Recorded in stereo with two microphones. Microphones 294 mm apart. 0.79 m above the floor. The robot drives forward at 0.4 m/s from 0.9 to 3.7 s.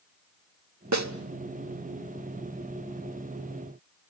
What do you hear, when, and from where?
0.9 s a snare drum: 70° right (ahead or behind), 1.1 m; by 1.1 s 65° right (ahead or behind), 1.1 m